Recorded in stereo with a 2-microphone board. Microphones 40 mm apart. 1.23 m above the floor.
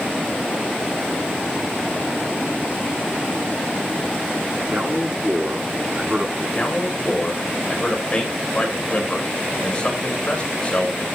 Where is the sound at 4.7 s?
35° right (ahead or behind), 10 m.